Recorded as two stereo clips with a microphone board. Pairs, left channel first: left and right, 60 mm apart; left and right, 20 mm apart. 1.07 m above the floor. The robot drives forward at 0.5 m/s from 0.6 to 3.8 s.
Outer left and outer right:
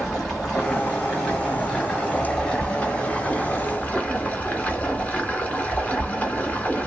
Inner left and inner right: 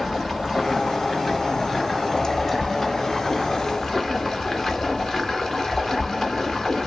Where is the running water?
10° left (ahead or behind), 1.9 m; by 6.9 s 20° left (ahead or behind), 0.8 m.